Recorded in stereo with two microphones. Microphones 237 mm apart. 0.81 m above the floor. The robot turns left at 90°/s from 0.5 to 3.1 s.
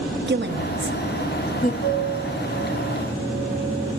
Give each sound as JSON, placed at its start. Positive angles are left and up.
{"t": 0.3, "sound": "a woman speaking", "side_deg": -45, "distance_m": 0.9}
{"t": 1.8, "sound": "a piano", "azimuth_deg": 40, "distance_m": 4.5}